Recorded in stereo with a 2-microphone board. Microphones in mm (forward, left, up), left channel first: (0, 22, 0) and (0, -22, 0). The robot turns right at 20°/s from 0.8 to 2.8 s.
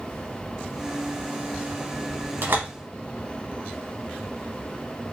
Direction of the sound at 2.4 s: 60° right (ahead or behind).